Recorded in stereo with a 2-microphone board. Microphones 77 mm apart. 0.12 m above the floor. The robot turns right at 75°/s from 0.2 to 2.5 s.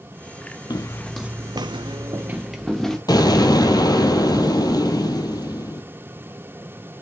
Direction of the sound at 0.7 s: 60° left (ahead or behind).